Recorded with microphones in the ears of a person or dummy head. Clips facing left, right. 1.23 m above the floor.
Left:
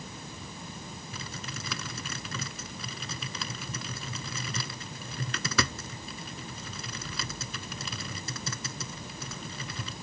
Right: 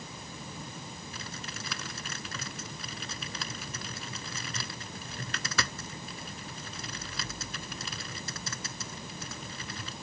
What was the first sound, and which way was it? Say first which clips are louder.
Typing on a keyboard: left 2 dB; 65° left (ahead or behind).